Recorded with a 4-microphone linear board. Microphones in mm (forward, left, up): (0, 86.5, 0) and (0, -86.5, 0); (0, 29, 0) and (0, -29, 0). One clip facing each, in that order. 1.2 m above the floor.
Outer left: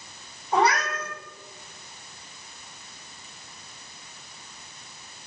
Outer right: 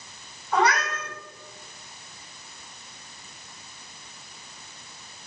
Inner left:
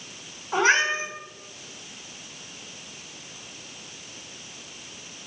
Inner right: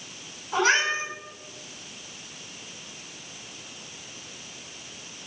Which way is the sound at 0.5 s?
30° left (ahead or behind).